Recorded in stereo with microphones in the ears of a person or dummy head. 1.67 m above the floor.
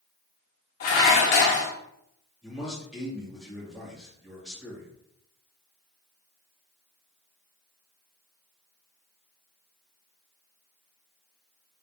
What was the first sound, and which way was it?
Dishes clattering, 45° left (ahead or behind).